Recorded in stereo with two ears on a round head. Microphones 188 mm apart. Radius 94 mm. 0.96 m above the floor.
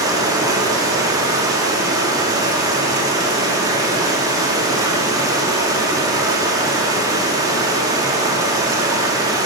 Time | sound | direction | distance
0.0 | running water | 15° right (ahead or behind) | 1.6 m